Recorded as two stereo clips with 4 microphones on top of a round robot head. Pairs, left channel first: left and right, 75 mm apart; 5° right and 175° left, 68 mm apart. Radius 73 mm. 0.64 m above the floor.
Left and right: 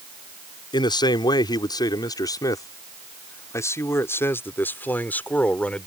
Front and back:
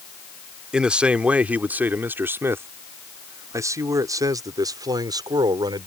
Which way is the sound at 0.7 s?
95° left.